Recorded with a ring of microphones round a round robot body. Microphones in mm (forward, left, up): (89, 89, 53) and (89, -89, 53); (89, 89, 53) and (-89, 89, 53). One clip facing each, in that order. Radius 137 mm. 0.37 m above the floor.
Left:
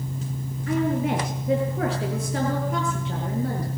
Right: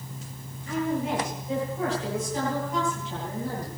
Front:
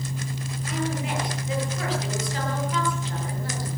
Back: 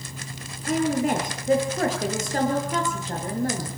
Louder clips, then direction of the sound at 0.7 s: Left 4 dB, back 7 dB; 135° left.